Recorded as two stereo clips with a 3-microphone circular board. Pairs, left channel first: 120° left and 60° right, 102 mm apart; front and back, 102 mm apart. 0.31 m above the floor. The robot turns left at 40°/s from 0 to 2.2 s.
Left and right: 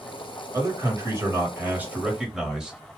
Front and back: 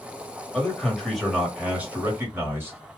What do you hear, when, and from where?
0.5 s a man speaking: 65° right, 1.4 m; by 2.8 s 135° right, 1.4 m